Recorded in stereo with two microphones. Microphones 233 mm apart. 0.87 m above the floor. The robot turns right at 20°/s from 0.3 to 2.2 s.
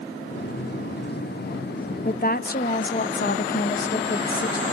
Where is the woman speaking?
40° left (ahead or behind), 0.6 m.